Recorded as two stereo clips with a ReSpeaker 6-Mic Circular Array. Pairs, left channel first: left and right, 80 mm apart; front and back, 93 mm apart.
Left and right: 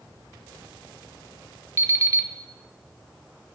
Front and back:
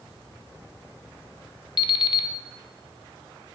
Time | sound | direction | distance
1.8 | an alarm clock | 35° right | 0.6 m